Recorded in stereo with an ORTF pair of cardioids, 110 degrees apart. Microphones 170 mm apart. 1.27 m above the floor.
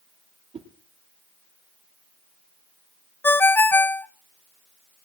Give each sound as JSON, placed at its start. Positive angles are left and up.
{"t": 0.5, "sound": "a whoosh", "azimuth_deg": -35, "distance_m": 3.5}
{"t": 3.2, "sound": "a ringtone", "azimuth_deg": 10, "distance_m": 0.8}